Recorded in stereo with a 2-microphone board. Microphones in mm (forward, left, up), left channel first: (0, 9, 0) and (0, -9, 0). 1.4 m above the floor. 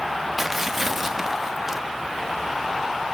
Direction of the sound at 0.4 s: 15° right (ahead or behind).